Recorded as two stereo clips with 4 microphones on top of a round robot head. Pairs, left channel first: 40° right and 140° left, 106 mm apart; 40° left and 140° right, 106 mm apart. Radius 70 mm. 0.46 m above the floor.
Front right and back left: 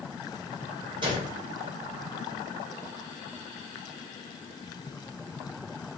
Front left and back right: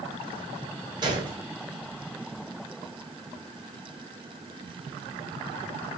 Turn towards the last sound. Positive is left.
turn(degrees=175)